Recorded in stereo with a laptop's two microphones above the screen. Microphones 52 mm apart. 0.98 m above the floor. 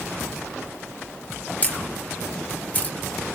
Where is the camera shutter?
30° left (ahead or behind), 1.7 m.